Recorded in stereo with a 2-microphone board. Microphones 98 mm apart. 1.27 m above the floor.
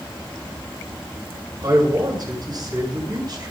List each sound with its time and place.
1.6 s a man speaking: 45° right (ahead or behind), 6.5 m